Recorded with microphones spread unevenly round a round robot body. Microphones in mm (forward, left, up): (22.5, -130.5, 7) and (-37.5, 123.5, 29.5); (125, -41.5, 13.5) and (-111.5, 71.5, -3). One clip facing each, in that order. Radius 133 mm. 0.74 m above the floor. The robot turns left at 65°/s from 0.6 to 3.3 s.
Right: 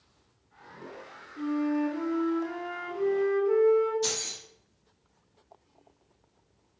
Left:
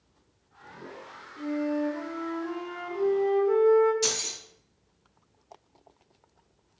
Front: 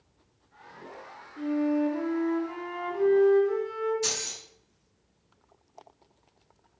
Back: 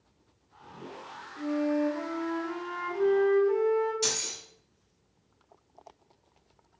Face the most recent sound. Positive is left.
turn(degrees=150)